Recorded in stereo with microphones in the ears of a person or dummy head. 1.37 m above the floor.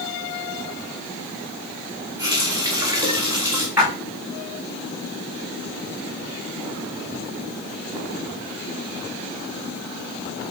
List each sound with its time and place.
2.2 s a running tap: 20° right (ahead or behind), 2 m
3.8 s a splash: 5° right (ahead or behind), 5 m